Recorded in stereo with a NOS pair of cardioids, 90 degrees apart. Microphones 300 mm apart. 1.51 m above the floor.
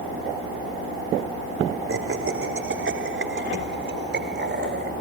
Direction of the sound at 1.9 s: 45° right.